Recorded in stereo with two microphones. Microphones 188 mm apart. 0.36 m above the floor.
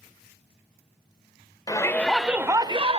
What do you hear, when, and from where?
1.7 s a shout: 20° left (ahead or behind), 0.9 m; by 3.0 s 35° right (ahead or behind), 0.9 m